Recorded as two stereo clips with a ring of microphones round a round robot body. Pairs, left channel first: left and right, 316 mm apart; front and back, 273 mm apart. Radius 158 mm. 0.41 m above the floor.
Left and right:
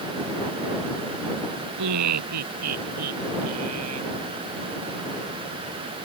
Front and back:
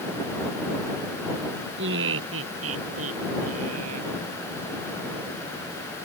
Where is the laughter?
125° right; by 4.2 s 135° right.